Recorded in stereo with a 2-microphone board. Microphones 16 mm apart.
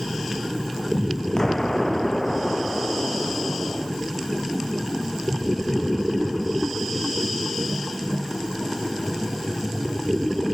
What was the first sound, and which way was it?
An explosion, 35° left (ahead or behind).